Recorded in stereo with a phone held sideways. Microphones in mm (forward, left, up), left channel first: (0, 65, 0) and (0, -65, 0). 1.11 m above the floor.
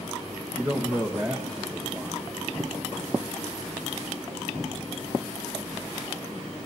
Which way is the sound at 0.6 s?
20° right (ahead or behind).